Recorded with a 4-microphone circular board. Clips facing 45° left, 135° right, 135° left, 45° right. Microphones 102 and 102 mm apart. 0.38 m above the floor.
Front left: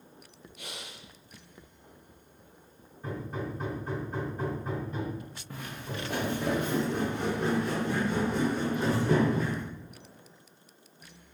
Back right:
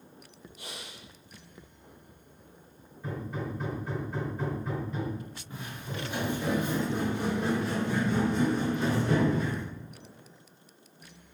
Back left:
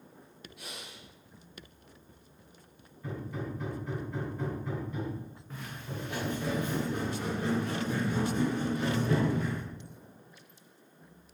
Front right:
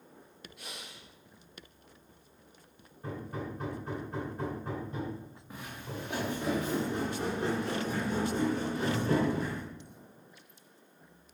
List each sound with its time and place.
0.6 s breathing: 45° left, 2.5 m
3.0 s hammering: 5° left, 3 m
5.5 s footsteps: 30° left, 2.5 m; by 9.6 s 10° left, 6 m